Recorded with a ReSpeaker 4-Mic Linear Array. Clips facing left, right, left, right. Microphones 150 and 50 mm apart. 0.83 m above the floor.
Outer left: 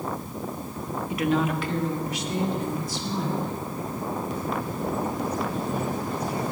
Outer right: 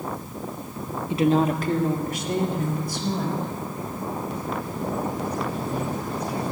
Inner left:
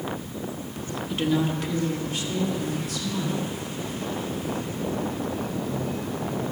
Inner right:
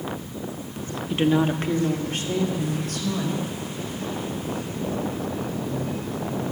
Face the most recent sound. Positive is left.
turn(degrees=-60)  # may be behind; listen again after turning